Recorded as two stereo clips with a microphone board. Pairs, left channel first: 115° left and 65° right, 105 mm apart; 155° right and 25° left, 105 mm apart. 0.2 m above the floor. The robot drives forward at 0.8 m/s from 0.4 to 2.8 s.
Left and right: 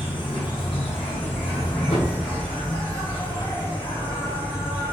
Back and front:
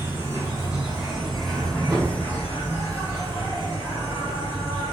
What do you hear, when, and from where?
0.0 s an insect: 80° left, 1.5 m; by 4.9 s 140° left, 2.5 m
1.9 s a thud: 110° left, 1.9 m; by 2.2 s 115° left, 1.9 m